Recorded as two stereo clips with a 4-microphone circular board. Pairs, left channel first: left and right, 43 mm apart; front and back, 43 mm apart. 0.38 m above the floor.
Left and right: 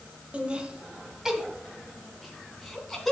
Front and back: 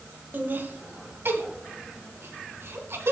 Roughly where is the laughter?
Behind right.